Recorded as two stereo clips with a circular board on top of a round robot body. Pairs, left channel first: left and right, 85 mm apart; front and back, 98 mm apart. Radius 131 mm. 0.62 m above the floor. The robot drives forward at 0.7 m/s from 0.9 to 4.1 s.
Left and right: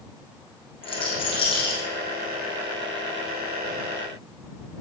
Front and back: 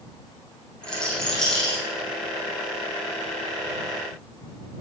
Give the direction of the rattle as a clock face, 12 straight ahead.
9 o'clock.